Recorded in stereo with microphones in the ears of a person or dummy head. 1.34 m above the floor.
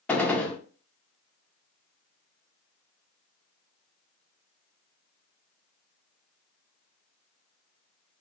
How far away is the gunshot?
About 0.6 m.